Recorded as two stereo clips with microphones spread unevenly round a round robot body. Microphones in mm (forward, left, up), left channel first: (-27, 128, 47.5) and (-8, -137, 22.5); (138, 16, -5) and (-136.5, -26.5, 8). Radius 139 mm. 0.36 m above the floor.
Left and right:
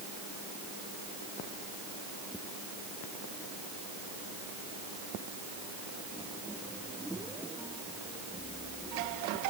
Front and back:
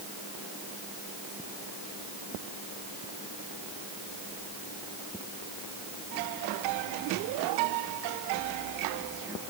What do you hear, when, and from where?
Only background noise.